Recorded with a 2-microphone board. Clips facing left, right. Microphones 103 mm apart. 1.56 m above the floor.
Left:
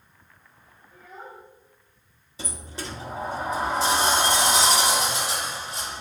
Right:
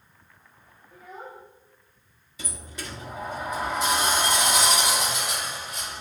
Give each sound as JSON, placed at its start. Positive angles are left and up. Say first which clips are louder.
{"t": 0.9, "sound": "a child speaking", "louder": "right 1 dB", "side_deg": -60, "distance_m": 0.9}
{"t": 2.4, "sound": "a sliding door", "louder": "left 3 dB", "side_deg": 30, "distance_m": 0.7}